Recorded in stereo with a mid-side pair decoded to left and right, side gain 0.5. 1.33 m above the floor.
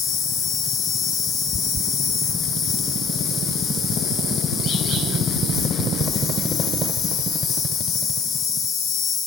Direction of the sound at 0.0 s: 60° left.